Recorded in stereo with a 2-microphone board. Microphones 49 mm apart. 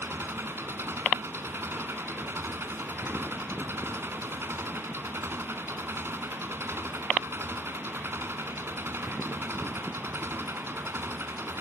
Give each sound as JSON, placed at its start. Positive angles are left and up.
{"t": 0.0, "sound": "an engine running", "side_deg": -55}